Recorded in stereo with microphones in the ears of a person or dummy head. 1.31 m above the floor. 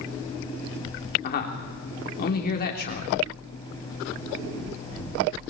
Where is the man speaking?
55° left (ahead or behind), 3.5 m.